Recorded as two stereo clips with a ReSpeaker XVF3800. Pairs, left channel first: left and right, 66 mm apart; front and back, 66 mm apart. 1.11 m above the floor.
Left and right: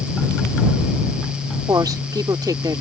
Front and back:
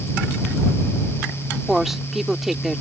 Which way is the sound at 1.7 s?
95° right.